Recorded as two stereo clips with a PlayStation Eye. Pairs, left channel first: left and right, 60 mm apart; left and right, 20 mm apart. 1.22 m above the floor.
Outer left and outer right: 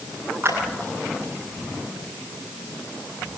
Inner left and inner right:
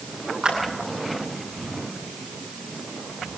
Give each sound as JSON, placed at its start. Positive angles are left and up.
{"t": 0.4, "sound": "a clap", "side_deg": -40, "distance_m": 10.0}